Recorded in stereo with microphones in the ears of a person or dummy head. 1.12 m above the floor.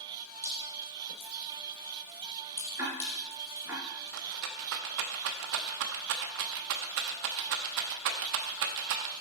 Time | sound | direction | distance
0.4 | dripping | 20° left (ahead or behind) | 6 m
2.8 | ticking | 10° right (ahead or behind) | 3.5 m
4.1 | a rattle | 60° right (ahead or behind) | 0.7 m